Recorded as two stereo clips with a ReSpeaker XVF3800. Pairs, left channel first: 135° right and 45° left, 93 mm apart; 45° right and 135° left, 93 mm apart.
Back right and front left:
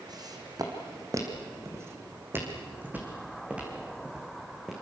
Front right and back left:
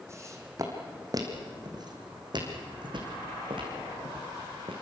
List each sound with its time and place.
0.1 s footsteps: 80° left, 3.5 m; by 4.7 s 130° left, 5 m